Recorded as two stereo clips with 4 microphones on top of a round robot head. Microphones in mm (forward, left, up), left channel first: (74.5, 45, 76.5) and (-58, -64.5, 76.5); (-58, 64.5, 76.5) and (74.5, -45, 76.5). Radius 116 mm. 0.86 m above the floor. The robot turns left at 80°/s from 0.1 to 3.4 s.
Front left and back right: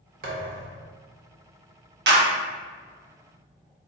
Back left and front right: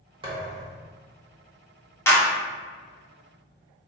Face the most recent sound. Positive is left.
turn(degrees=110)